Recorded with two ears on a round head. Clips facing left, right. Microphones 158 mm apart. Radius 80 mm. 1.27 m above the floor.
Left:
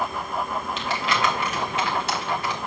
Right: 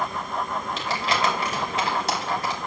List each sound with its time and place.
0.8 s crumpling: 35° right (ahead or behind), 3 m